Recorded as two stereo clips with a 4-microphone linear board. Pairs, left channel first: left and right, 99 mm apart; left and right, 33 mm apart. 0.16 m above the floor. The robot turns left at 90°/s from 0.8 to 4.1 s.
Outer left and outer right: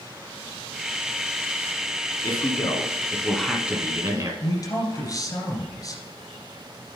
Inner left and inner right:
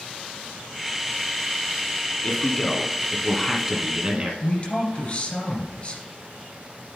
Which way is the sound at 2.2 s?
110° left.